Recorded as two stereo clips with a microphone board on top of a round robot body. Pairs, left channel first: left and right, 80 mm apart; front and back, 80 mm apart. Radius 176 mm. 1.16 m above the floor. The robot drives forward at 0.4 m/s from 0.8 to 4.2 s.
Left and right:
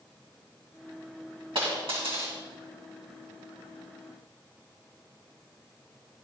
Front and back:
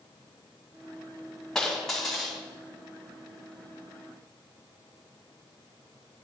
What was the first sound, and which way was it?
A dropped coin, 85° right.